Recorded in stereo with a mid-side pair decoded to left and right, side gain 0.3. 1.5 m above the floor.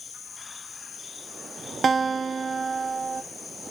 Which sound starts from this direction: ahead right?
A guitar, at 1.8 s.